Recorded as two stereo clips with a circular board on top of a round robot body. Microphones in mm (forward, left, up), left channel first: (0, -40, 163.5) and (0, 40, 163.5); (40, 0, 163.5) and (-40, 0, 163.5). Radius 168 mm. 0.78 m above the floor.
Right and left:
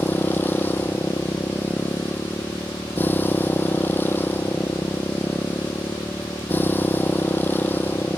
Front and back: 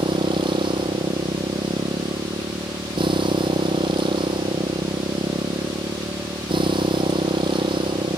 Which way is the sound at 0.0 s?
155° right.